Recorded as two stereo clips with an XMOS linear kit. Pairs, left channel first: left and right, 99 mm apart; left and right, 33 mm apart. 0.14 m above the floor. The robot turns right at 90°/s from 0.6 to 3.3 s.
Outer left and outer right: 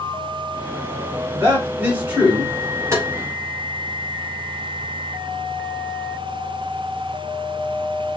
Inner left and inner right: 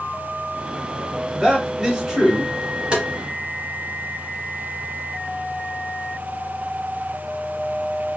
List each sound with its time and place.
1.3 s a man speaking: 20° right (ahead or behind), 1.4 m; by 2.6 s centre (ahead or behind), 1.4 m
2.9 s tapping: 30° right (ahead or behind), 1.6 m